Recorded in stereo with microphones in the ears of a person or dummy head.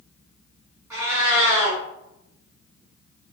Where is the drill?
No drill in this recording.